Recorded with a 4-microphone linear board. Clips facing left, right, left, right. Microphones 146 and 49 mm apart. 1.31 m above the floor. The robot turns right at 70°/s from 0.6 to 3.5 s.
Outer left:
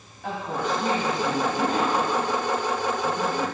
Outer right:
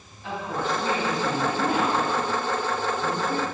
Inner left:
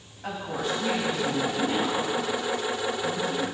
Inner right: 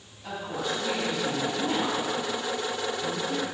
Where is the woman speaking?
115° left, 4 m; by 3.4 s 45° right, 4 m.